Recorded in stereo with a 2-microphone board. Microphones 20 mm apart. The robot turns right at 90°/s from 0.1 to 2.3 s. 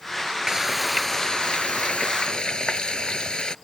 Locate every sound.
0.5 s frying: 35° right; by 3.5 s 130° left